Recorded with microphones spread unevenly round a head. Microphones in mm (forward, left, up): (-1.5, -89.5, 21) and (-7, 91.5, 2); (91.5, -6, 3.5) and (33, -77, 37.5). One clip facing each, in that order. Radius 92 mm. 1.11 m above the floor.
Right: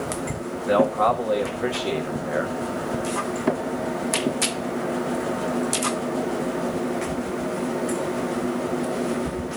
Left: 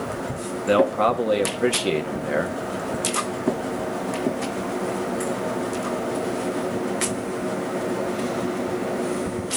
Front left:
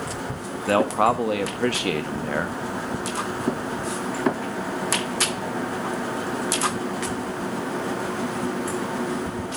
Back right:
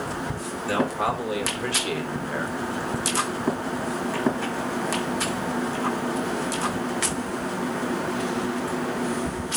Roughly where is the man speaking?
Ahead left.